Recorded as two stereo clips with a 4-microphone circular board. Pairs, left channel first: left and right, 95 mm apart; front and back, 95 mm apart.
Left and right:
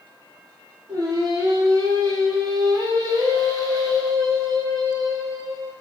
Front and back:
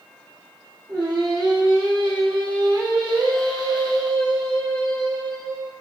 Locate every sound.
0.9 s singing: 140° right, 1.2 m